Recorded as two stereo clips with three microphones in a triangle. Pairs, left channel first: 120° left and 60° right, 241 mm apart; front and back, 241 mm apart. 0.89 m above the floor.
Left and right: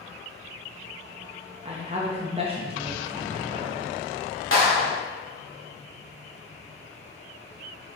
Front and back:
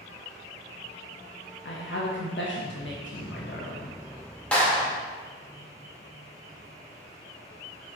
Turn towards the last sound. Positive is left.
turn(degrees=85)